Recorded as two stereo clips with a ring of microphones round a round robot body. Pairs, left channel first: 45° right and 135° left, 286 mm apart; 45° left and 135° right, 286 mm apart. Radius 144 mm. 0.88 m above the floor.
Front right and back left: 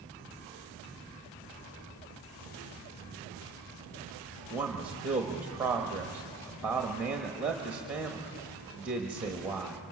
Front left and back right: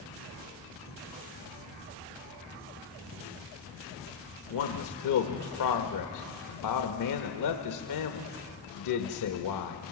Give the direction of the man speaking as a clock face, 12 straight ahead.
10 o'clock.